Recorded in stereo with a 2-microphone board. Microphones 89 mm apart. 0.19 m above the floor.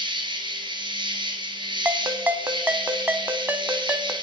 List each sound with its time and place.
0.0 s an insect: 60° right (ahead or behind), 1.8 m
1.9 s a ringtone: 20° right (ahead or behind), 0.7 m